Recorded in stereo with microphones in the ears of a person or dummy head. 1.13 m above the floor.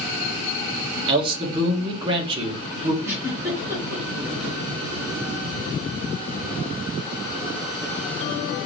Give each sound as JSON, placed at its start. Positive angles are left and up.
{"t": 1.1, "sound": "a man speaking", "side_deg": -25, "distance_m": 1.5}
{"t": 3.0, "sound": "a giggle", "side_deg": -10, "distance_m": 3.0}